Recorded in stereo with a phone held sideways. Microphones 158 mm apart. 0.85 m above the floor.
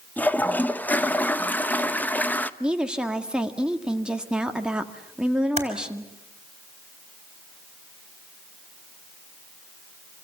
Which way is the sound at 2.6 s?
5° right (ahead or behind).